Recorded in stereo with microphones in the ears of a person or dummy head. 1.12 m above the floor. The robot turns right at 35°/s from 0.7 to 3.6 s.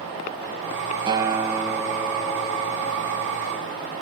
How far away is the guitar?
About 0.8 m.